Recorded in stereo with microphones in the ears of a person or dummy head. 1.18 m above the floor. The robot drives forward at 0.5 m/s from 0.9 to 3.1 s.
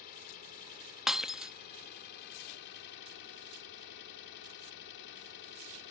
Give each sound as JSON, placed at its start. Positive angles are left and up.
{"t": 0.0, "sound": "an engine running", "side_deg": 50}
{"t": 1.1, "sound": "breaking glass", "side_deg": -5}